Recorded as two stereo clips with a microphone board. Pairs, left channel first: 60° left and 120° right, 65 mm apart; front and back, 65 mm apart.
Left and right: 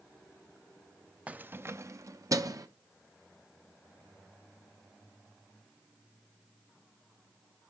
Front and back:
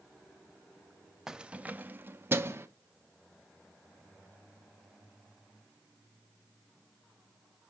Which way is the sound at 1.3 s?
110° right.